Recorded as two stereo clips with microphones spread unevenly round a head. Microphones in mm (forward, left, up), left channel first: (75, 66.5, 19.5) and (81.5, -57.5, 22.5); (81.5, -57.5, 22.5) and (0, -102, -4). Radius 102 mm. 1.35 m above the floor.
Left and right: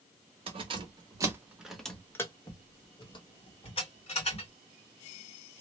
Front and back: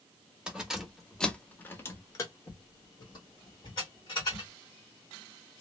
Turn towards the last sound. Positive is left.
turn(degrees=65)